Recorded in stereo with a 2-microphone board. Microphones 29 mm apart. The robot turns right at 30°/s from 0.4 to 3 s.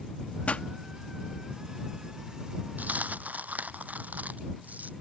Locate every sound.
0.5 s a pop: 55° left (ahead or behind)
2.8 s a dropped coin: 80° right; by 4.9 s 75° right (ahead or behind)